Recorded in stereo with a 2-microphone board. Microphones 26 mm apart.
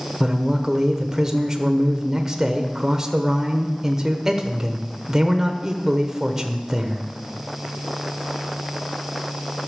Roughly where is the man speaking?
Centre.